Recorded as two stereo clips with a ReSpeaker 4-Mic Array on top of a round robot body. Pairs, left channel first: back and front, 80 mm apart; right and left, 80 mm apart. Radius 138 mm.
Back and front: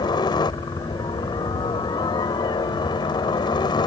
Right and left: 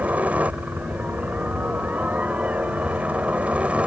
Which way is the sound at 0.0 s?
160° left.